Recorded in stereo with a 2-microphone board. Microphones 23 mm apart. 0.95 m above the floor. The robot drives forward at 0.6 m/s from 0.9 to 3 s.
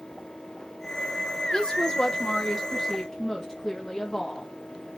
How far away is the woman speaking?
About 0.9 m.